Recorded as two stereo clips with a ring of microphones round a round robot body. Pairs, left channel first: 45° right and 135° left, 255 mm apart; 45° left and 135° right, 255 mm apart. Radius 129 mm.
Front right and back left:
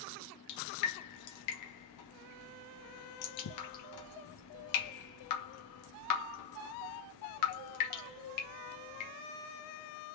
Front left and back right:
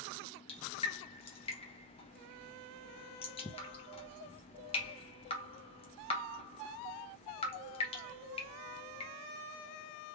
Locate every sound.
0.5 s dripping: 25° right, 0.9 m